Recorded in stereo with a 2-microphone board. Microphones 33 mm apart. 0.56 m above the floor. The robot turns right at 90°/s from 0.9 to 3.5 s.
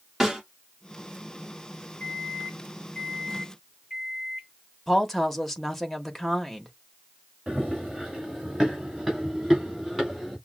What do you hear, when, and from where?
0.2 s a snare drum: 10° right (ahead or behind), 1.6 m
2.0 s a microwave: 60° left, 4.5 m; by 4.5 s 165° right, 4.5 m
4.9 s a woman speaking: 5° left (ahead or behind), 1.0 m
7.5 s running footsteps: 10° right (ahead or behind), 2 m; by 10.4 s 5° right (ahead or behind), 3.5 m